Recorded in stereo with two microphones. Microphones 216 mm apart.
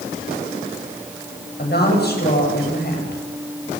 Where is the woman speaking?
50° left (ahead or behind), 7 m.